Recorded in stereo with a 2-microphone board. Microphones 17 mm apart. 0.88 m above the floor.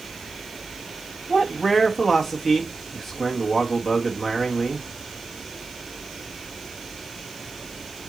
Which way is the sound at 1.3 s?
5° right (ahead or behind).